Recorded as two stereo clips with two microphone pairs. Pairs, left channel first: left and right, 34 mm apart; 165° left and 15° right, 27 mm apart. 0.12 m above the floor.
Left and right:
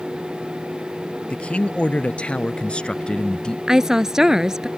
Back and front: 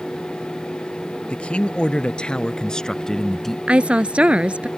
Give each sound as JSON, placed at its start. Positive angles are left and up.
{"t": 1.3, "sound": "a man speaking", "azimuth_deg": 135}
{"t": 3.7, "sound": "a woman speaking", "azimuth_deg": -20}